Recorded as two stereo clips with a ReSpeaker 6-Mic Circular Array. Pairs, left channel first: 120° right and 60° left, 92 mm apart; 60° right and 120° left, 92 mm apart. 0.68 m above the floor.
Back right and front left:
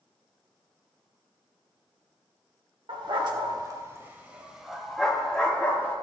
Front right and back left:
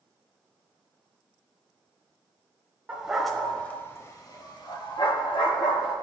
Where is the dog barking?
40° left, 0.9 m; by 6.0 s 50° right, 1.5 m.